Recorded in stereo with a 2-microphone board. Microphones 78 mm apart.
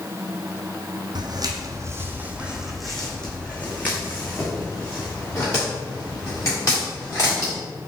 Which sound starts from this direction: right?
Footsteps, at 1.1 s.